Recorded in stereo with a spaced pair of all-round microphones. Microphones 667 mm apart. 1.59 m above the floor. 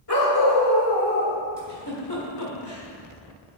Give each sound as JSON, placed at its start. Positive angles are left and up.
{"t": 0.1, "sound": "a dog barking", "side_deg": 35, "distance_m": 1.5}
{"t": 1.6, "sound": "a giggle", "side_deg": 35, "distance_m": 1.5}